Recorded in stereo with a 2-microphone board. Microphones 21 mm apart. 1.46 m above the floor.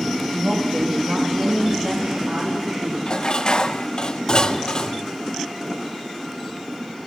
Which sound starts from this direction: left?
Dishes clattering, at 3.1 s.